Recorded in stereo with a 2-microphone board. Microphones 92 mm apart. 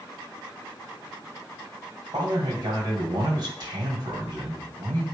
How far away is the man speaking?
About 1.9 m.